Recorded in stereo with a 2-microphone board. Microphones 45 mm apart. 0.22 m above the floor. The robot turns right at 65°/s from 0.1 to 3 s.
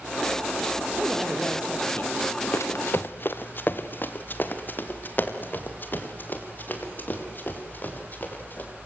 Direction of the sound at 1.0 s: 30° right.